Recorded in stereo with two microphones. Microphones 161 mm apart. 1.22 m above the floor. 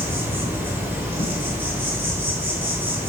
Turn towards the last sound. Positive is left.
turn(degrees=-15)  # may be behind; listen again after turning